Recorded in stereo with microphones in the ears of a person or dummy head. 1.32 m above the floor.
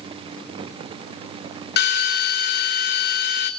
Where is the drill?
60° left (ahead or behind), 3 m.